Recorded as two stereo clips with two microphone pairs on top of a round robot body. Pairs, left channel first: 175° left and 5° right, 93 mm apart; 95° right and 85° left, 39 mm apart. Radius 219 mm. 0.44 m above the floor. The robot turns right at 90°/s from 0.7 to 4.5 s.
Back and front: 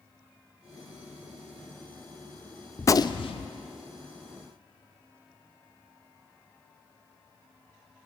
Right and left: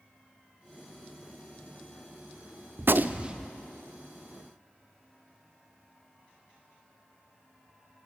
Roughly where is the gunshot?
Left.